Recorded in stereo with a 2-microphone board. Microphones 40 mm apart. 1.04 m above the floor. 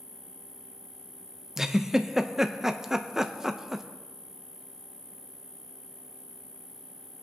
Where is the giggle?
10° right (ahead or behind), 0.6 m.